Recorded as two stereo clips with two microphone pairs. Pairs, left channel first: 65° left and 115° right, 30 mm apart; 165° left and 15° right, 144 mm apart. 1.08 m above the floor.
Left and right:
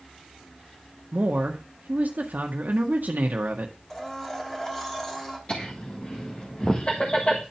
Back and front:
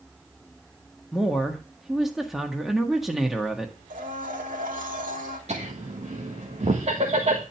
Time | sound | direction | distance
1.1 | a woman speaking | 105° right | 1.3 m
3.9 | a blender | 10° right | 2.5 m
5.5 | laughter | 15° left | 1.6 m